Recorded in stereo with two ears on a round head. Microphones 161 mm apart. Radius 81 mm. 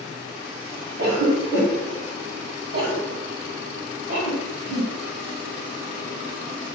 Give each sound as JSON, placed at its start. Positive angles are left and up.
{"t": 1.0, "sound": "a cough", "side_deg": -55, "distance_m": 1.5}